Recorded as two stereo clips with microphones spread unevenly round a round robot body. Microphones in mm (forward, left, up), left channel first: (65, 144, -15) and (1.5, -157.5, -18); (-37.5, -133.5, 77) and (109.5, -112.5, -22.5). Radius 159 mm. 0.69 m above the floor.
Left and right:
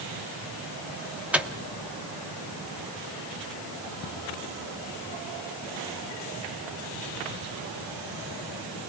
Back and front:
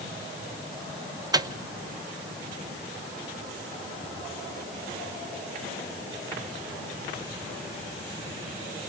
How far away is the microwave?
About 0.9 m.